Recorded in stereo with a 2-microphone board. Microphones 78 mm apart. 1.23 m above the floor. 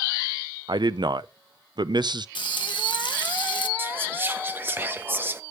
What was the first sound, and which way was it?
A man speaking, 65° right (ahead or behind).